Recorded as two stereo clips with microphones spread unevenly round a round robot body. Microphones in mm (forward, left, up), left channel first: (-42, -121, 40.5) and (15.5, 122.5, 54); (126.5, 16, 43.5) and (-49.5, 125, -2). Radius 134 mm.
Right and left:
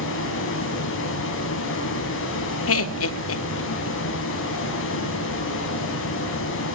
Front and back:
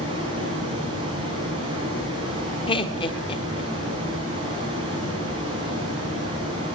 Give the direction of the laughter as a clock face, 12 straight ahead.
4 o'clock.